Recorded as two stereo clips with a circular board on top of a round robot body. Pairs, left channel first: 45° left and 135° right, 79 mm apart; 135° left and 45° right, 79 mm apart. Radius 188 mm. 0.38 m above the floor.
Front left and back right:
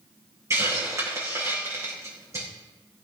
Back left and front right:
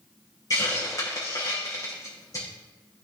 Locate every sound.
0.5 s a hiss: 175° left, 6.5 m